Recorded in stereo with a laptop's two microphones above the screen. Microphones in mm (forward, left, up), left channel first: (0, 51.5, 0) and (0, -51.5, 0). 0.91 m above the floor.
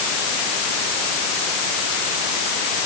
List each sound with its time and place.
Only background noise.